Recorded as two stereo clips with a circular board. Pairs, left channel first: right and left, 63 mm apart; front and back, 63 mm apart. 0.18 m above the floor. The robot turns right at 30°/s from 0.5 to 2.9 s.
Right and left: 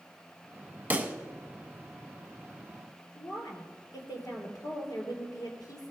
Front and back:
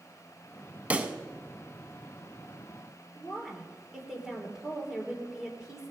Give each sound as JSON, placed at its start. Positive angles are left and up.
{"t": 0.9, "sound": "a pop", "azimuth_deg": 130, "distance_m": 0.8}
{"t": 3.1, "sound": "a woman speaking", "azimuth_deg": -105, "distance_m": 3.5}